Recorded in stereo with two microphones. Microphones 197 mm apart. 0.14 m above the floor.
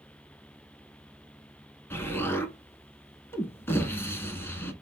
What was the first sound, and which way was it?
An explosion, 10° left (ahead or behind).